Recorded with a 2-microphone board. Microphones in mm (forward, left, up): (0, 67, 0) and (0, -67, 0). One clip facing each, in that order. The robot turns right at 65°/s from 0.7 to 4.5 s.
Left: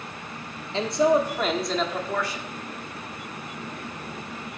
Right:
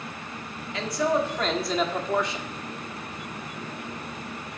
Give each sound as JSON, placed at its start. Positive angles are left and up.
{"t": 0.7, "sound": "a man speaking", "azimuth_deg": 125, "distance_m": 1.4}